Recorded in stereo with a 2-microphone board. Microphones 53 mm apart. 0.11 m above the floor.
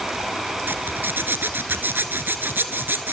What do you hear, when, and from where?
0.7 s a zipper: 40° right (ahead or behind), 1.3 m